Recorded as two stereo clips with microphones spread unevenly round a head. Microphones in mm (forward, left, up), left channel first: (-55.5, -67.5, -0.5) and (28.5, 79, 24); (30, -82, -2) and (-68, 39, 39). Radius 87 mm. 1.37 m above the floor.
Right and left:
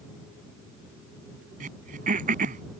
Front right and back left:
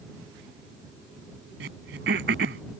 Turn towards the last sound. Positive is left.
turn(degrees=100)